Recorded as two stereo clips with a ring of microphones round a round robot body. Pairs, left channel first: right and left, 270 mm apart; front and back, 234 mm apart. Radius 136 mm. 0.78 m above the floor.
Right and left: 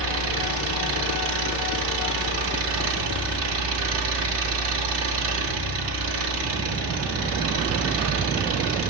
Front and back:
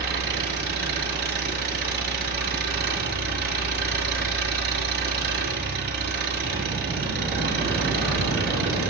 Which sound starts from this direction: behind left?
An engine running, at 0.0 s.